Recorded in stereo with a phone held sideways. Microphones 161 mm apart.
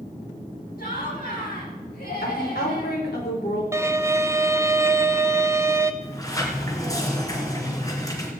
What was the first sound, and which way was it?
Laughter, 75° left (ahead or behind).